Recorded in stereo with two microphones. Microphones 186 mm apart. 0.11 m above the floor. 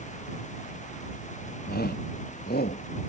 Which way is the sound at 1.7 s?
60° left (ahead or behind).